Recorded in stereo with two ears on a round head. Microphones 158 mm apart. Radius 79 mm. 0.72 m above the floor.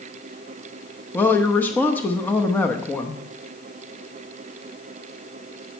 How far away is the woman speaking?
About 0.9 m.